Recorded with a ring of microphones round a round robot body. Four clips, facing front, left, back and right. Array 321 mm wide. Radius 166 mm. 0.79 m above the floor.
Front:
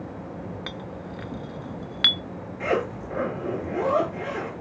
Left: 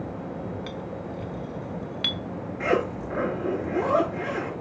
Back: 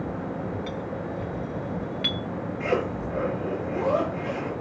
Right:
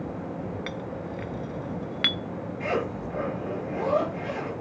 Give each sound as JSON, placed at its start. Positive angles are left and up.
{"t": 0.7, "sound": "a clink", "azimuth_deg": -35, "distance_m": 0.5}
{"t": 2.6, "sound": "a zipper", "azimuth_deg": 65, "distance_m": 4.5}